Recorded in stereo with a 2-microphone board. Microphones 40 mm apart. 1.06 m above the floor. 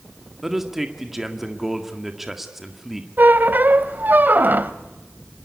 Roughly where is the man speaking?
Centre.